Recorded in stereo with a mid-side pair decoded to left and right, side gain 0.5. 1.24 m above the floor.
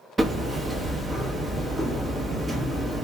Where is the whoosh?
I don't hear a whoosh.